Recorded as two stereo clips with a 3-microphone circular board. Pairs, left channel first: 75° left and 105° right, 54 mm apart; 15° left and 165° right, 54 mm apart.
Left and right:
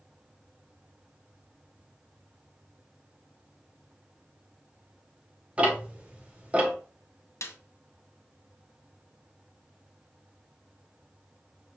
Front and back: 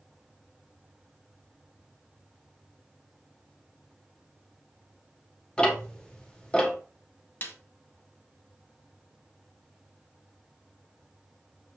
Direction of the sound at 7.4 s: 60° left.